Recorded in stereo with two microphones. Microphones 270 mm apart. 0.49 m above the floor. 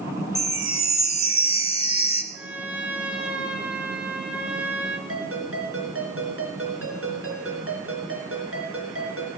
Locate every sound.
0.3 s a chime: 25° left (ahead or behind), 1.1 m
2.3 s a trumpet: 5° right (ahead or behind), 1.6 m
5.1 s a ringtone: 55° right (ahead or behind), 3.5 m